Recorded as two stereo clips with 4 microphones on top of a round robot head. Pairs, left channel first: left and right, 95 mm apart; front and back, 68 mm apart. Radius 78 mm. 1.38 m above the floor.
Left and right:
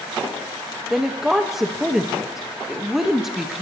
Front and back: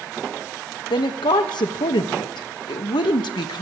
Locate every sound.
0.9 s a woman speaking: 5° right, 1.6 m